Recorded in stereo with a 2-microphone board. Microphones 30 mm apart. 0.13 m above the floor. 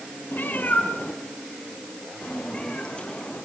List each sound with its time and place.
0.3 s a cat meowing: 75° left (ahead or behind), 2.5 m; by 3.4 s 30° left (ahead or behind), 5.5 m